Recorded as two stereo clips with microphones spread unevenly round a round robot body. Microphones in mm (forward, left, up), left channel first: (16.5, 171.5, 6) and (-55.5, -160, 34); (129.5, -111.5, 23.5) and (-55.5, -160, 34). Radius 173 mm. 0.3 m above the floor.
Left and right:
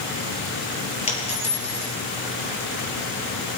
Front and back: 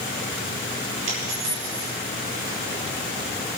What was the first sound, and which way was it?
A dropped coin, 150° left.